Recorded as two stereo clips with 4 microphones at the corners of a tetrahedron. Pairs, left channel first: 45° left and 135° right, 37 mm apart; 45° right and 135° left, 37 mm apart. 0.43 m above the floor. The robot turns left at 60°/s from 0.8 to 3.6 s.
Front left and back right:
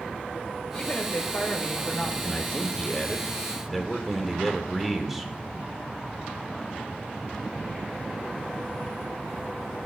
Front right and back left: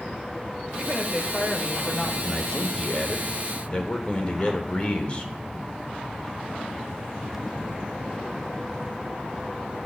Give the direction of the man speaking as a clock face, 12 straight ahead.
11 o'clock.